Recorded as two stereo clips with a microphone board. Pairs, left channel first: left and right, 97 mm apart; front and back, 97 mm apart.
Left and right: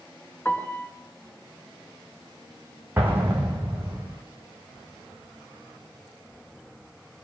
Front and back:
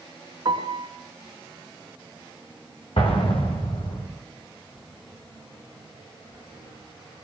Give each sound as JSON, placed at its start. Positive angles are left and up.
{"t": 0.5, "sound": "a piano", "azimuth_deg": 160, "distance_m": 3.0}
{"t": 3.0, "sound": "an explosion", "azimuth_deg": -20, "distance_m": 5.0}